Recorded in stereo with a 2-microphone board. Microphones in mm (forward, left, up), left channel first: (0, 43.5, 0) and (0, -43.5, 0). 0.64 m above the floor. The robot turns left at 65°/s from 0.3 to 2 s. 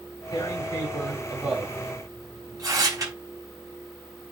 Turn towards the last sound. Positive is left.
turn(degrees=-45)  # may be behind; listen again after turning